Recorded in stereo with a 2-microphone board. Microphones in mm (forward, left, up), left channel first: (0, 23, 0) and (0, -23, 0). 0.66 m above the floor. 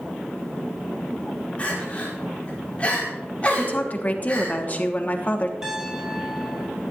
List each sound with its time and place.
1.6 s crying: 30° left (ahead or behind), 4.5 m
3.5 s a woman speaking: 35° left (ahead or behind), 1.2 m
5.6 s a piano: 15° right (ahead or behind), 4 m